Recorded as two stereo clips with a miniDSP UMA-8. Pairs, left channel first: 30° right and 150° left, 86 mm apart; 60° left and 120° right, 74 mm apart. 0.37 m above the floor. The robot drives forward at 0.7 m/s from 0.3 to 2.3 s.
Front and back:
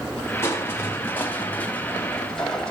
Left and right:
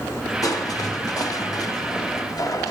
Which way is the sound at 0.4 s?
30° left.